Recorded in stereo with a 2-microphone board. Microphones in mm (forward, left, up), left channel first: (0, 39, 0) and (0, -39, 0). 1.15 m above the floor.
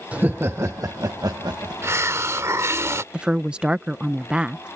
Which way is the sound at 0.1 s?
20° right (ahead or behind).